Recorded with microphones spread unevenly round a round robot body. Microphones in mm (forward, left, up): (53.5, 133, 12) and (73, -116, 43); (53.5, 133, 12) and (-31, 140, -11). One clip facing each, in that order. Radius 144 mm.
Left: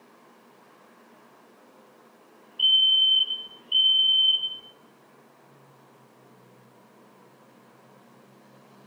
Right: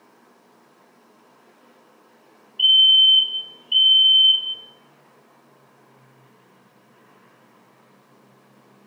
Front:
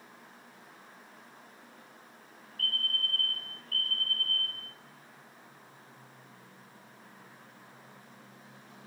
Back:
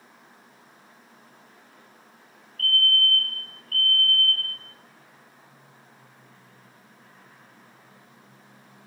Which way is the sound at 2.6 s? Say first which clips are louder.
Right 6 dB, back 11 dB; 70° right.